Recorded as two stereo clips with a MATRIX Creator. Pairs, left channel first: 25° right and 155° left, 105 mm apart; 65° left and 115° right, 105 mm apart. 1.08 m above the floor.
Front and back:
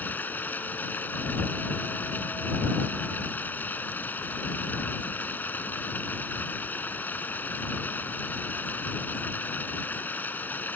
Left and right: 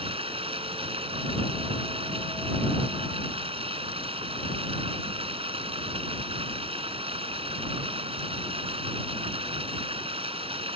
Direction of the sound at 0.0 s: 95° right.